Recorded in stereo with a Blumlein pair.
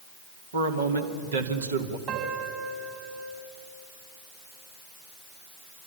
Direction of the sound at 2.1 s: 35° right.